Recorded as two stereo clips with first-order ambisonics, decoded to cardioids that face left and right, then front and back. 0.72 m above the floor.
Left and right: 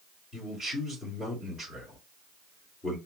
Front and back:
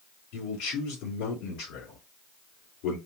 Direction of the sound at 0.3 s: 15° left.